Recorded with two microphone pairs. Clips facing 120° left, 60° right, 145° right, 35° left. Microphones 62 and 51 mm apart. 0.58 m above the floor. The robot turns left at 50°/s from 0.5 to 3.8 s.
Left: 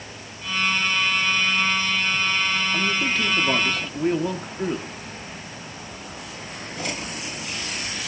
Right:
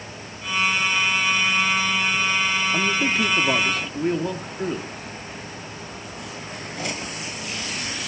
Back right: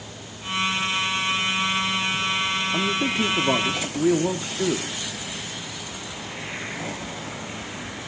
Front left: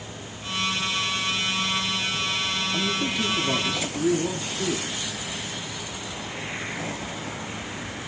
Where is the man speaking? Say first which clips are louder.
Right 2 dB, back right 3 dB; 100° right, 1.0 m; by 4.9 s 155° right, 1.0 m.